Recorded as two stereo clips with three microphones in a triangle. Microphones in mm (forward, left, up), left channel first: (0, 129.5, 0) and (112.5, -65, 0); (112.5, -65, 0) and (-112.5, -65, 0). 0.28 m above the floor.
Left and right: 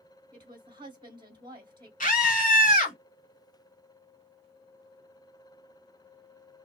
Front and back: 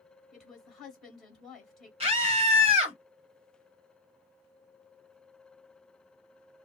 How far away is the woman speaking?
About 1.5 m.